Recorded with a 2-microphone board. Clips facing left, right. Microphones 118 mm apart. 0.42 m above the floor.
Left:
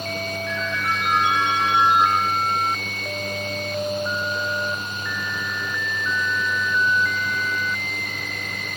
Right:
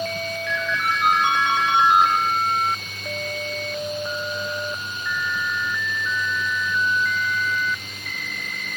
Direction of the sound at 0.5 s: 70° right (ahead or behind).